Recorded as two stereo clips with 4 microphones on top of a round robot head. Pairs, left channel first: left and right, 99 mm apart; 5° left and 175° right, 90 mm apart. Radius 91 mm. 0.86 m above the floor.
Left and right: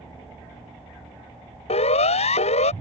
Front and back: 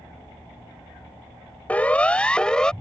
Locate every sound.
1.7 s a siren: 80° left; by 2.7 s 85° left